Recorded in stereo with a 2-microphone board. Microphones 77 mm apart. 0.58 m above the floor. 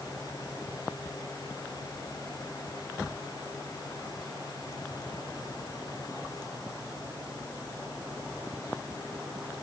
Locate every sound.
Only background noise.